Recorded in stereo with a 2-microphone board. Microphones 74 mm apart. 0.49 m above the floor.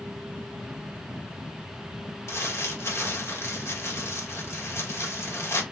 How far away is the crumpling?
About 0.7 m.